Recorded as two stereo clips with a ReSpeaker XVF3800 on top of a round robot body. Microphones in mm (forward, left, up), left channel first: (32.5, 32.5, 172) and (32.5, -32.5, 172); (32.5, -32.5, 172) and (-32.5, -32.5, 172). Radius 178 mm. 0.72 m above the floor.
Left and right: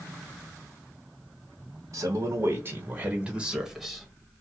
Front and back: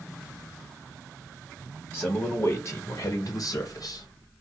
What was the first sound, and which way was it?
A man speaking, 70° right.